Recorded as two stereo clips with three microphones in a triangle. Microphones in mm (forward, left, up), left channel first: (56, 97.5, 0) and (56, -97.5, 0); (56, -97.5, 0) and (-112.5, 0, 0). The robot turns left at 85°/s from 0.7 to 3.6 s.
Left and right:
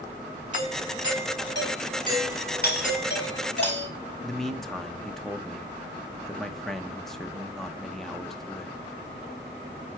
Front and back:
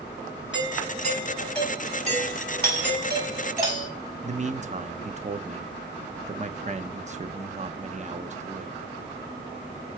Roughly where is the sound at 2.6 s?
Behind left.